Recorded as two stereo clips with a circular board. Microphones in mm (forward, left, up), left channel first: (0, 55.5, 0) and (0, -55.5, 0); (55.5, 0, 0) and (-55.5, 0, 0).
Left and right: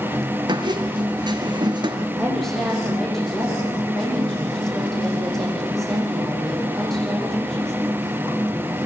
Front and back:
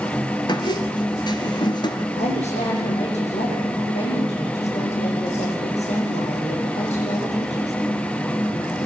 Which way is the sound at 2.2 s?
5° left.